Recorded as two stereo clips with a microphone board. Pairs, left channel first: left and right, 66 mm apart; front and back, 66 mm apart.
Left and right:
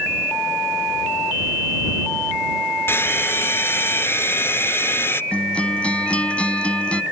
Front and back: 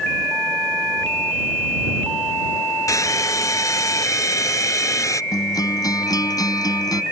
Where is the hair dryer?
35° left.